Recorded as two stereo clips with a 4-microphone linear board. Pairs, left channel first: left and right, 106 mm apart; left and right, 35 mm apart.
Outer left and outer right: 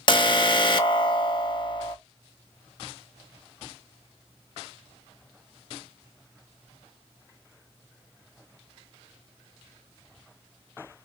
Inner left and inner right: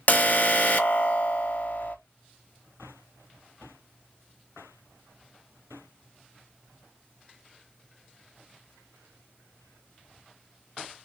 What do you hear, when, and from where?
0.1 s an alarm: 45° left (ahead or behind), 0.6 m